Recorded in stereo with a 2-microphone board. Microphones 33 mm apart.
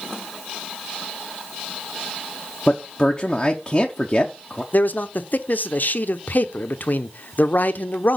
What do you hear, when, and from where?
2.7 s a man speaking: 20° left (ahead or behind), 0.7 m
4.7 s a man speaking: 55° left (ahead or behind), 0.7 m